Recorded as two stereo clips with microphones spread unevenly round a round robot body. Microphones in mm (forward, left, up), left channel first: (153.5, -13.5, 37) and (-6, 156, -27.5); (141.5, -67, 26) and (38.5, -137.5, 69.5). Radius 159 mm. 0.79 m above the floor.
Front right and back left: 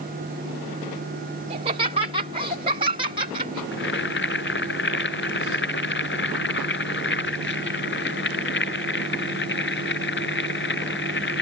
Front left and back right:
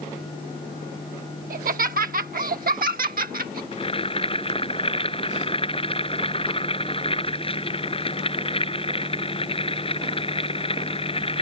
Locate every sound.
1.5 s laughter: 165° right; by 3.6 s 160° right
3.7 s boiling: 10° right